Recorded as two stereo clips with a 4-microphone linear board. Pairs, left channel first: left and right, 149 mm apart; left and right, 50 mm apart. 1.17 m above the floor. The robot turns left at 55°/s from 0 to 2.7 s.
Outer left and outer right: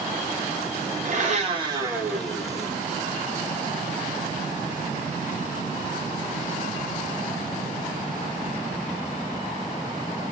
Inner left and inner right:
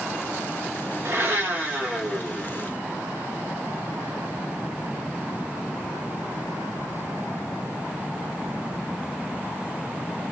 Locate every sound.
1.1 s a blender: 115° right, 1.8 m; by 2.7 s 155° left, 1.8 m